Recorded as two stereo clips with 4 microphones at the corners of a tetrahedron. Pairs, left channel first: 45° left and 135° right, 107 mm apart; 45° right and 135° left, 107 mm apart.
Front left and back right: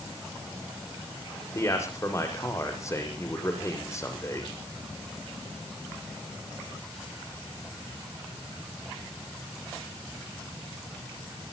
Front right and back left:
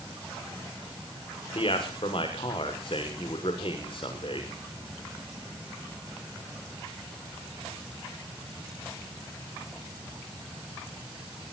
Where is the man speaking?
15° right, 6.5 m.